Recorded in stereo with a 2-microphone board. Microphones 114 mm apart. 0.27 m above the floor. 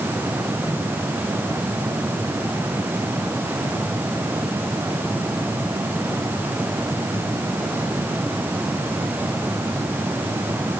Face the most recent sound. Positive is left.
No sound to turn to.